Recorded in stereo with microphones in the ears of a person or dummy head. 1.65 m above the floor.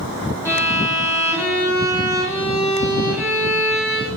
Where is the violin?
15° left (ahead or behind), 2.5 m.